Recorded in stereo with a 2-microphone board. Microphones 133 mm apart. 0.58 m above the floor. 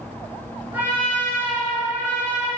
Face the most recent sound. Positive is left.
turn(degrees=-15)  # may be behind; listen again after turning